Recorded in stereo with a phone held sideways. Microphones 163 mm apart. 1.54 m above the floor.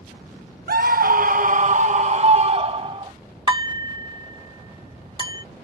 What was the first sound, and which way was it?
A scream, 70° right (ahead or behind).